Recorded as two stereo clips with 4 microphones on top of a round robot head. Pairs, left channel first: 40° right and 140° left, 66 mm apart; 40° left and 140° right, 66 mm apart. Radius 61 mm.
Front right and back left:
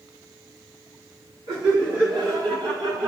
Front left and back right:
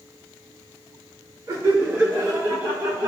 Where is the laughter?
165° left, 5.5 m; by 3.1 s 160° left, 7.5 m.